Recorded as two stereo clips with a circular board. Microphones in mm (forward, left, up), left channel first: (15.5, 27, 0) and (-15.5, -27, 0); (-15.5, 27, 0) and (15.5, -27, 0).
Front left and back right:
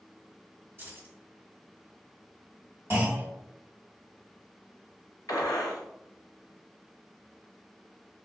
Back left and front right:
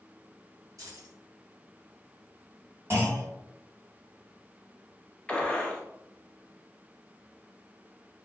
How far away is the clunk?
About 1.5 m.